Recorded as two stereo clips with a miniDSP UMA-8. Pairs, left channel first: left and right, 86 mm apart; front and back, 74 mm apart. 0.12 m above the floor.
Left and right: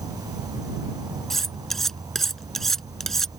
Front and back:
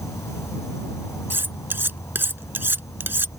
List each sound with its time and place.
0.0 s an insect: 50° right
1.3 s cutlery clinking: 175° left